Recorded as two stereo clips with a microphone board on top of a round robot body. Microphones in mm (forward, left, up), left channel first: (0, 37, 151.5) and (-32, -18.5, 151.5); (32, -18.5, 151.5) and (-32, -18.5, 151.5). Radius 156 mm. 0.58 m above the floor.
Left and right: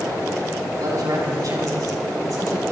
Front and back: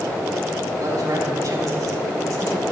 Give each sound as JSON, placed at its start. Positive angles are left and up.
{"t": 0.8, "sound": "a man speaking", "azimuth_deg": -150, "distance_m": 5.0}